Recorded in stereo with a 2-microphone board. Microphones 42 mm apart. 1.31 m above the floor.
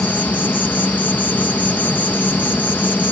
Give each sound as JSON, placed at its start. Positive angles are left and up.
{"t": 0.0, "sound": "an insect", "side_deg": 50}